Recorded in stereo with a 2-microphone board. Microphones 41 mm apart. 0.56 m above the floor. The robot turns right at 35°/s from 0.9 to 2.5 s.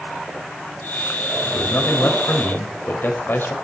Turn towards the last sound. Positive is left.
turn(degrees=115)